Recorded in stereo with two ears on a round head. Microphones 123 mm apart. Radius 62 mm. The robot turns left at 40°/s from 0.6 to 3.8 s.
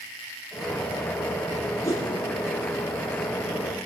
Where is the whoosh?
20° left (ahead or behind), 3 m; by 2.1 s 30° left (ahead or behind), 3 m.